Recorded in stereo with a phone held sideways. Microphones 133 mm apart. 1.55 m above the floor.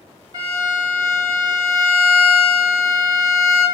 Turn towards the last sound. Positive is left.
turn(degrees=-35)  # may be behind; listen again after turning